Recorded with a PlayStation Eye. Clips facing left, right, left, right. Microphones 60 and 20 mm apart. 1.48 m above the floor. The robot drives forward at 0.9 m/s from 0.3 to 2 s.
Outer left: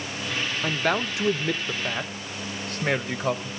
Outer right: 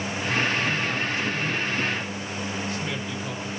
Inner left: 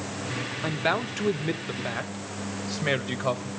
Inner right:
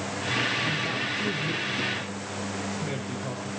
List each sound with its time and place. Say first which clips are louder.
0.6 s a man speaking: outer left 1 dB, inner left 1 dB; 60° left (ahead or behind), 1.2 m; by 3.5 s 55° left (ahead or behind), 1.3 m